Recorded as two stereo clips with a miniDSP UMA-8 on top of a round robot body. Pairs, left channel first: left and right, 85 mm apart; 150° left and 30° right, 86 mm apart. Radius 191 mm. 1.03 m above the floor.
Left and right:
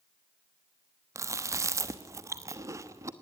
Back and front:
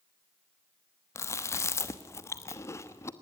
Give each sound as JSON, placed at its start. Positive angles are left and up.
{"t": 1.1, "sound": "chewing", "azimuth_deg": -150, "distance_m": 1.1}